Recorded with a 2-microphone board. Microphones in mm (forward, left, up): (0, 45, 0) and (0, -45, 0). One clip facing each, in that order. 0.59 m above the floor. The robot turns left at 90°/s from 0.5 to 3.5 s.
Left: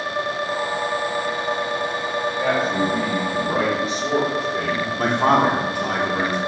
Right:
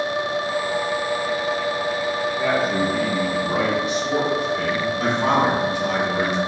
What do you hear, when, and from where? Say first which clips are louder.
2.4 s a man speaking: left 1 dB; 165° left, 1.4 m; by 4.9 s 65° left, 1.4 m
5.0 s a man speaking: left 3 dB; 50° left (ahead or behind), 0.9 m